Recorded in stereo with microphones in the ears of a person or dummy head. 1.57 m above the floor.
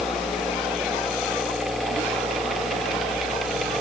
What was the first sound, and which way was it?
Only background noise.